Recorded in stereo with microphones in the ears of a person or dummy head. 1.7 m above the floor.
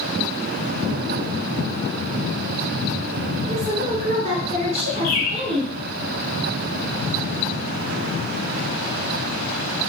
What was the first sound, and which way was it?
A woman speaking, 35° right (ahead or behind).